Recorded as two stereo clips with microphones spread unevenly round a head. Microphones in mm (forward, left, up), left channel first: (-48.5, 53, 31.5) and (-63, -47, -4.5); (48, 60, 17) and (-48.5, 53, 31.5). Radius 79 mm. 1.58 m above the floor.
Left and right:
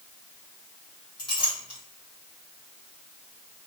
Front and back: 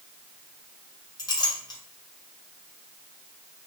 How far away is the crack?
No crack in this recording.